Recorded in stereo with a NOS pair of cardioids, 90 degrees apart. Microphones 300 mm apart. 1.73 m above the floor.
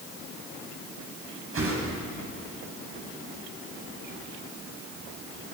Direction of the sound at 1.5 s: 45° right.